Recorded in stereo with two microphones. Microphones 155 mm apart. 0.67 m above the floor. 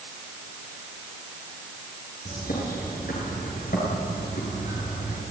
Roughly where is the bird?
Left.